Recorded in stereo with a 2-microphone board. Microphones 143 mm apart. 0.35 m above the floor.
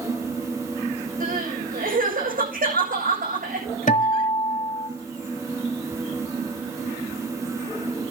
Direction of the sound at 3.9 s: 60° left (ahead or behind).